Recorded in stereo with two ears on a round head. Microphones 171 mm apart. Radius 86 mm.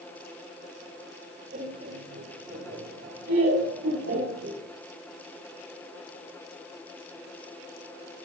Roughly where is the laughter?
Right.